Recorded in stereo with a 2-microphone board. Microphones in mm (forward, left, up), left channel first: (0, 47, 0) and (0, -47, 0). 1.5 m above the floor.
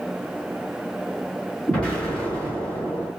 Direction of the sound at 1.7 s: 15° left (ahead or behind).